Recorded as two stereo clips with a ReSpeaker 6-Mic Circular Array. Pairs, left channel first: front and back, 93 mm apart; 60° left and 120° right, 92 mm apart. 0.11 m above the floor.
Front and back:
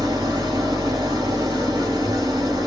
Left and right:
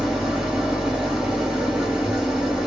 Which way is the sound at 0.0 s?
160° left.